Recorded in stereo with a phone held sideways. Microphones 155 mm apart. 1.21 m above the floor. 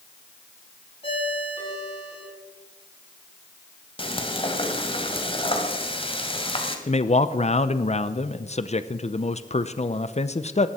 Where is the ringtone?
40° left (ahead or behind), 5.5 m.